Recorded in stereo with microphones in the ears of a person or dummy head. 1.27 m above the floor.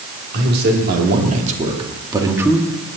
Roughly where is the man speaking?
Right.